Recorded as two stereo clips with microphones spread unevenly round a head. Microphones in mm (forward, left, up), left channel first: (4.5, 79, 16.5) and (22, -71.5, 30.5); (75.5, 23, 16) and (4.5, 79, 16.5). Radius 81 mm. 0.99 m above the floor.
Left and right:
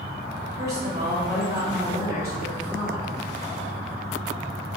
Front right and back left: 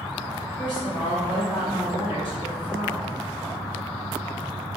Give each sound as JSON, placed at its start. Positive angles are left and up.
{"t": 0.6, "sound": "a woman speaking", "azimuth_deg": -135, "distance_m": 1.6}